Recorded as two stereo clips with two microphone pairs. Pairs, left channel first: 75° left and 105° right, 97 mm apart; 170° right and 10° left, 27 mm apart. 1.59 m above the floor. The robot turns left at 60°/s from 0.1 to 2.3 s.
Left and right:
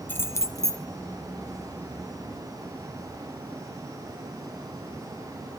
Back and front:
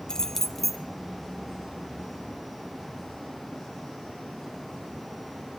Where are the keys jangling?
135° left, 0.6 m; by 0.8 s 90° left, 0.6 m.